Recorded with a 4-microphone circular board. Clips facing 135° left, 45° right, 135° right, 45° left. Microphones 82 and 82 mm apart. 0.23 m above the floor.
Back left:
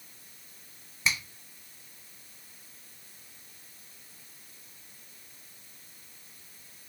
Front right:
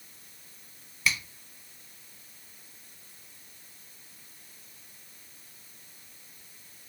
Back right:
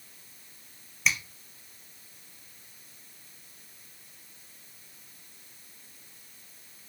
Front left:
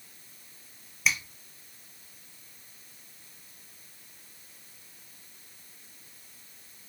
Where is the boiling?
I don't hear boiling.